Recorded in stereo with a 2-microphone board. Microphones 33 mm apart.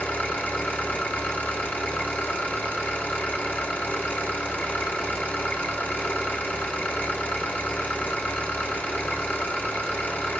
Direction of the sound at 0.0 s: 80° left.